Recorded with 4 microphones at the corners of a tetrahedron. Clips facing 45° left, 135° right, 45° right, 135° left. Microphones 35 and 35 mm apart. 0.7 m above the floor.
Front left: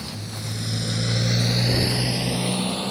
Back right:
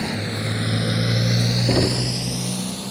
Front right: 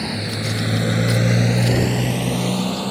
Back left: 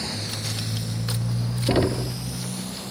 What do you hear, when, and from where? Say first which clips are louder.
0.0 s a motorcycle: back right 8 dB, front right 6 dB; 110° right; by 2.9 s 10° right
1.7 s knocking: back right 3 dB, front right 3 dB; 170° right